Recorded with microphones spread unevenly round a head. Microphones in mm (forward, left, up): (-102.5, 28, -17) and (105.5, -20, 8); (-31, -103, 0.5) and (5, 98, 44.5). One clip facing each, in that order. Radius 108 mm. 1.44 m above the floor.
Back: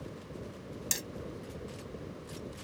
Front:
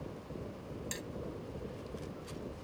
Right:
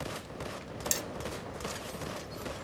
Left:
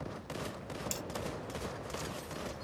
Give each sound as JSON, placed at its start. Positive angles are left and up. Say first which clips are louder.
{"t": 0.9, "sound": "hammering", "louder": "back 1 dB, right 3 dB", "azimuth_deg": -165}